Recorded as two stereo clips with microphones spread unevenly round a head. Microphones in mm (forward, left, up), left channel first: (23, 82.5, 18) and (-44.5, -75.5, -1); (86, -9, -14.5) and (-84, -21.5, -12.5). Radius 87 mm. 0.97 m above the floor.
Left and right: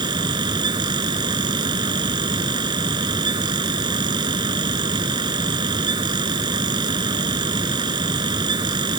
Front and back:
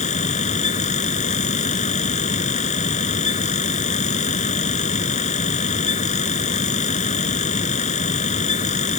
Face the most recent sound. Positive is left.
turn(degrees=-45)